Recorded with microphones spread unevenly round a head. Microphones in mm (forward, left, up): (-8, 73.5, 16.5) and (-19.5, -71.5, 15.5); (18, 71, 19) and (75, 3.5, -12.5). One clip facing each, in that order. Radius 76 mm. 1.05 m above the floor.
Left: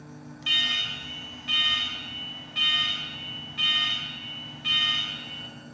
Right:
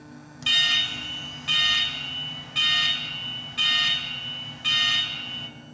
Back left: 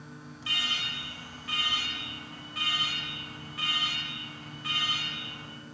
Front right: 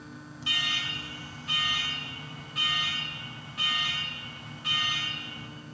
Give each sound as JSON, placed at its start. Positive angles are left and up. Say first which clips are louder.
{"t": 0.4, "sound": "an alarm", "louder": "right 5 dB, front right 1 dB", "azimuth_deg": -125, "distance_m": 5.0}